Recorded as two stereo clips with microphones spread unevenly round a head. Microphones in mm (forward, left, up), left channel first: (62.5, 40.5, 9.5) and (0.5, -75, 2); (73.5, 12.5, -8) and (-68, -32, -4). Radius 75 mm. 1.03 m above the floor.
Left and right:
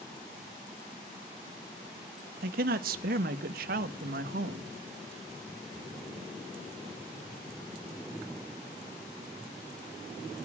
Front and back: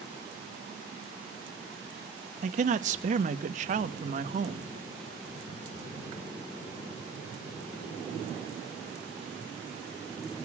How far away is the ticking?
No ticking in this recording.